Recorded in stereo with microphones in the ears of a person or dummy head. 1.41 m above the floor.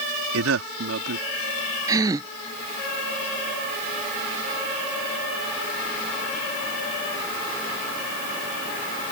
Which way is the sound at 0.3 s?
90° right.